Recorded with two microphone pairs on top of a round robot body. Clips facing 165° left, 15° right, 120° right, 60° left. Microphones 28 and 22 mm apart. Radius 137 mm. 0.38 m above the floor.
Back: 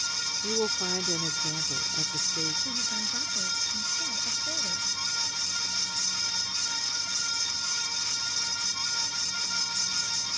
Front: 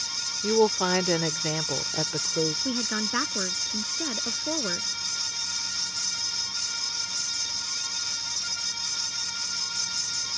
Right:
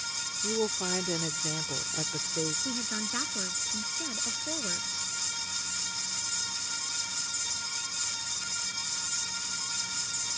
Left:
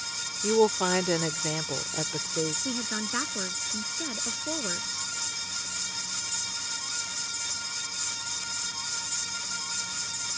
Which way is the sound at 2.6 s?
10° right.